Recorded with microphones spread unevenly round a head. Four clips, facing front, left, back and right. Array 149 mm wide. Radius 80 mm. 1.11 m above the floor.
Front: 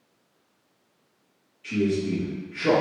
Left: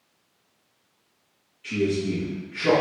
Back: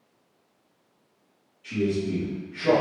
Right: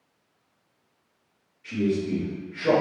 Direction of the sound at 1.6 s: 30° left.